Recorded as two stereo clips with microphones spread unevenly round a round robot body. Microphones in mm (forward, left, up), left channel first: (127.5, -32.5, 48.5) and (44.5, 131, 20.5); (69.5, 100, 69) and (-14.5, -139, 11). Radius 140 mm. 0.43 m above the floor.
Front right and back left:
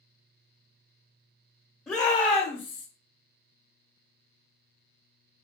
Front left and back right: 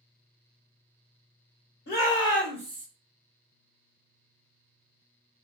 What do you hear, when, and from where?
1.9 s a shout: 30° left, 0.9 m; by 2.9 s 80° right, 0.9 m